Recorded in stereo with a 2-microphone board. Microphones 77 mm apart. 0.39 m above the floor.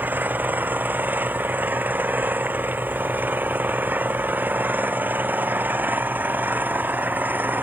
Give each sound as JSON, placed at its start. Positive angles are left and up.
{"t": 0.0, "sound": "an engine running", "side_deg": -25}